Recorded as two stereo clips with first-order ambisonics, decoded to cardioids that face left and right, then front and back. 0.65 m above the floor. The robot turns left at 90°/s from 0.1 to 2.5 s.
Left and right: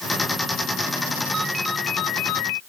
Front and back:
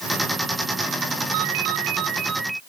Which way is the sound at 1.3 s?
160° right.